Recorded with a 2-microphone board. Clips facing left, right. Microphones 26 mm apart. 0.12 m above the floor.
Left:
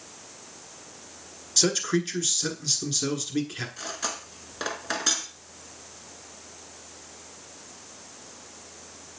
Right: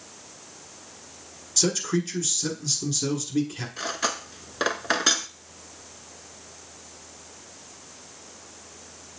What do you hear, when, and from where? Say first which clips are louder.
1.6 s a man speaking: left 1 dB; 25° left (ahead or behind), 1.4 m
3.8 s cutlery clinking: right 10 dB; 30° right (ahead or behind), 0.7 m